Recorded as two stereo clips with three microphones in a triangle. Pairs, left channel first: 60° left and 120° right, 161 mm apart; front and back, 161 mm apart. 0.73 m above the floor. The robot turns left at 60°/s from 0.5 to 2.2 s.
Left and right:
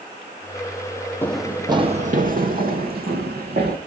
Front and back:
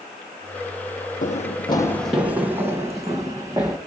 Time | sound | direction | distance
1.2 | running footsteps | 15° right | 1.2 m